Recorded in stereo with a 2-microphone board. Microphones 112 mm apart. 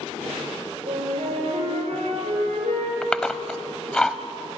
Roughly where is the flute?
Right.